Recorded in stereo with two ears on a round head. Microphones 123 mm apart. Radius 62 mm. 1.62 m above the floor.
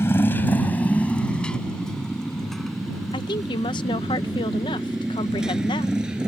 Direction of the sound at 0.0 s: 20° left (ahead or behind).